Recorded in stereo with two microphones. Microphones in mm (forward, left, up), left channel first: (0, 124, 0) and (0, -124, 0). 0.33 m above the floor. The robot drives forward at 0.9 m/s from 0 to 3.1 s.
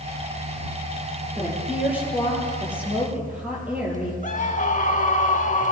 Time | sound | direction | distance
1.4 | a woman speaking | 5° right (ahead or behind) | 8.5 m
4.2 | a scream | 30° left (ahead or behind) | 1.0 m